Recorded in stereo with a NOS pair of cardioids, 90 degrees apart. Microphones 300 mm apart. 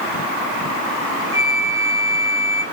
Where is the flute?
10° right, 2 m.